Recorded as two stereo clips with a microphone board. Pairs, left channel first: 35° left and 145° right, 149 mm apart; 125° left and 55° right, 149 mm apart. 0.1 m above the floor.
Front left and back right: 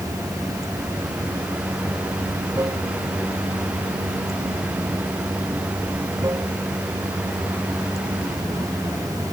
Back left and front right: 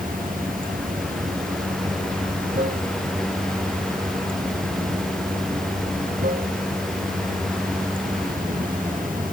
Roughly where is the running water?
Right.